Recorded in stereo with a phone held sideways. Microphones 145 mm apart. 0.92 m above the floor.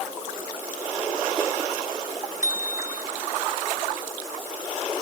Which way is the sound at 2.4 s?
55° left (ahead or behind).